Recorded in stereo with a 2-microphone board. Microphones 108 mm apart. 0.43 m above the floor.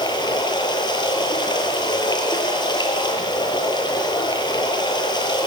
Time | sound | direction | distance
0.0 | running water | 40° left (ahead or behind) | 7.5 m